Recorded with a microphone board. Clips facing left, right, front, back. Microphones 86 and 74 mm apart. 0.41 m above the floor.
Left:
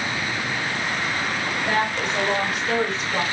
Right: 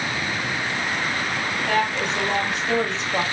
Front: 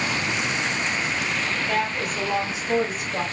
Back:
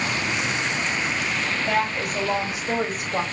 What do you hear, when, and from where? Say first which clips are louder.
1.7 s a woman speaking: right 1 dB, back 3 dB; 145° left, 2.5 m; by 3.2 s 160° left, 1.7 m